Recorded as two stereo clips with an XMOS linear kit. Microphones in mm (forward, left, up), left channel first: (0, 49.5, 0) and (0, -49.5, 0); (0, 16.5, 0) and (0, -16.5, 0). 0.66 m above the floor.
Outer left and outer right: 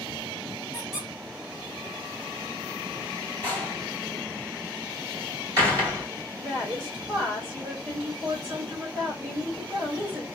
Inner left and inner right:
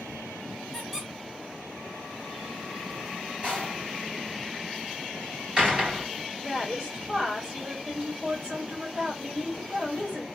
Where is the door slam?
35° right (ahead or behind), 2.5 m.